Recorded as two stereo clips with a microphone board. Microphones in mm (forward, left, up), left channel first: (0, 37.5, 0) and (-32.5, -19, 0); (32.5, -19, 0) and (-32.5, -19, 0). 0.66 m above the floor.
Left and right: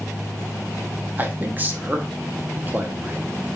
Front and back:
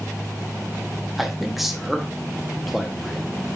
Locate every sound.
1.2 s a man speaking: 95° right, 0.7 m